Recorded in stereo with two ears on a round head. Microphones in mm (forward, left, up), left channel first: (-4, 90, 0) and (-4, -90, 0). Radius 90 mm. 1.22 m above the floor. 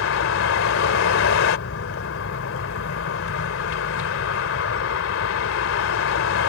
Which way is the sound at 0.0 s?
70° left (ahead or behind).